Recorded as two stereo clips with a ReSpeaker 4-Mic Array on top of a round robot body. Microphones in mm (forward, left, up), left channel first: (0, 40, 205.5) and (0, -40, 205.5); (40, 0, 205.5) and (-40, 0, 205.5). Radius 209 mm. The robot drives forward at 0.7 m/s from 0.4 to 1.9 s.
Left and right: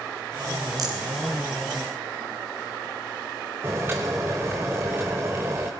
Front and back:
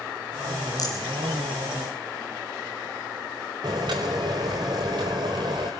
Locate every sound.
0.8 s a rattle: 45° right, 2 m
3.6 s boiling: 150° right, 0.6 m